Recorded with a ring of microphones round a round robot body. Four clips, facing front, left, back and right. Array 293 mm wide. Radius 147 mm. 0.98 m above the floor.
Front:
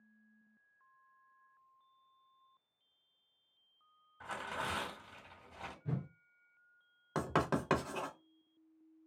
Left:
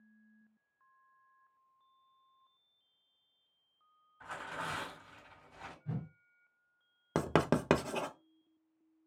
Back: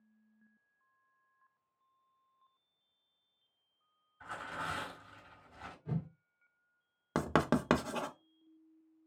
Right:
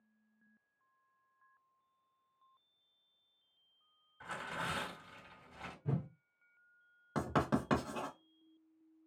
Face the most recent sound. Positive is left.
turn(degrees=120)